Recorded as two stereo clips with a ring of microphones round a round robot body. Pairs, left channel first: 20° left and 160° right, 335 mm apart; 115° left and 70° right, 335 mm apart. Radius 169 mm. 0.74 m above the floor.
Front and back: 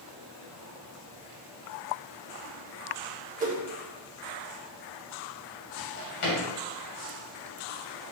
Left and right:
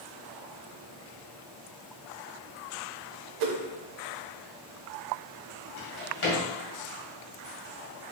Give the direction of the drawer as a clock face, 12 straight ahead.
10 o'clock.